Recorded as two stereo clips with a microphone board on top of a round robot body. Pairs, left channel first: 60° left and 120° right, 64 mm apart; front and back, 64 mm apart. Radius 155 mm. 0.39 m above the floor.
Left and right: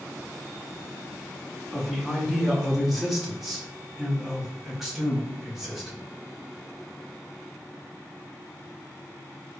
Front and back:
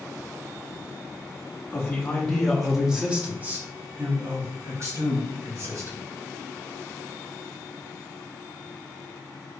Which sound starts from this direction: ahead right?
A man speaking, at 1.7 s.